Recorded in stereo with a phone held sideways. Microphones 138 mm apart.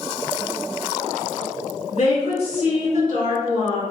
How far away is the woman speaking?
About 1.9 m.